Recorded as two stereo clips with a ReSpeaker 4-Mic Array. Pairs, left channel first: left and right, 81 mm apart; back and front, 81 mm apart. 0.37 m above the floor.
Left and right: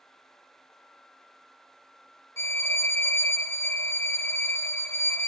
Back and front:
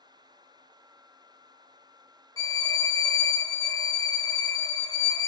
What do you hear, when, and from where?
2.4 s a violin: 140° left, 0.6 m